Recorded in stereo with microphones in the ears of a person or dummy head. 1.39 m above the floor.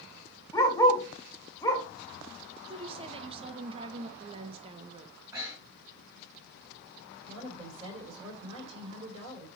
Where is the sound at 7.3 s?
30° right (ahead or behind), 5 m.